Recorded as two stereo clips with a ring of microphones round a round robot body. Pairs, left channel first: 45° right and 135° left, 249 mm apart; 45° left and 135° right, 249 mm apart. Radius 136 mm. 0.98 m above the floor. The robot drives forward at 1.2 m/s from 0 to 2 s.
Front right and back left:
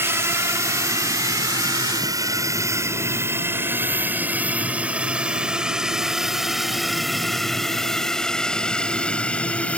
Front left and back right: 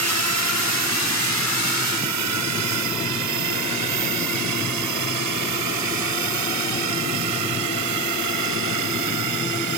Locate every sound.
0.0 s a drone: 145° right; by 9.8 s 130° right